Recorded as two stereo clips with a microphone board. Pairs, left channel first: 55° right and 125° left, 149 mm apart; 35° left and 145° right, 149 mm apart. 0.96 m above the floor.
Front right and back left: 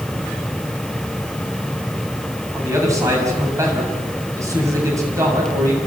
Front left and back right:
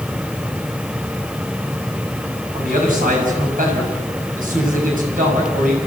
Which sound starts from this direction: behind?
A man speaking, at 2.5 s.